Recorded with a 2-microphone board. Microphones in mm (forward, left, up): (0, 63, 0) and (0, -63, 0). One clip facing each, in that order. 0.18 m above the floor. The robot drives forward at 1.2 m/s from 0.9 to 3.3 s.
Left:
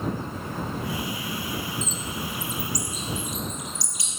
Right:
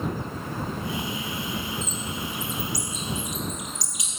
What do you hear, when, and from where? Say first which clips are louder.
1.8 s a bird: even; 60° right (ahead or behind), 0.8 m; by 4.2 s 20° right (ahead or behind), 2.0 m